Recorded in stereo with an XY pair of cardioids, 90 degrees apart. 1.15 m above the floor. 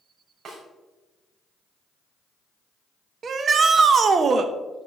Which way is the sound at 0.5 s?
65° right.